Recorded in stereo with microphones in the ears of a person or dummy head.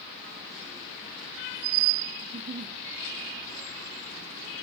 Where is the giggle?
30° right (ahead or behind), 0.8 m.